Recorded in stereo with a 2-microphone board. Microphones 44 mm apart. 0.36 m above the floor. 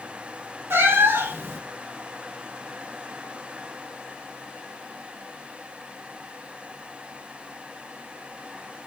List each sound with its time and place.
0.7 s a cat meowing: 60° right (ahead or behind), 0.5 m